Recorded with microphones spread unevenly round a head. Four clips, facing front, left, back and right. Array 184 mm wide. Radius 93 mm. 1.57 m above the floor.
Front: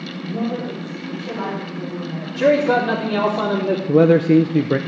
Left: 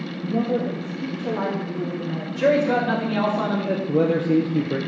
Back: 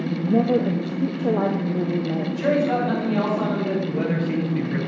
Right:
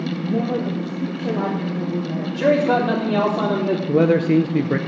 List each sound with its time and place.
0.2 s a woman speaking: 170° right, 1.2 m
2.4 s a man speaking: 45° right, 3.5 m
3.9 s a man speaking: 15° right, 0.8 m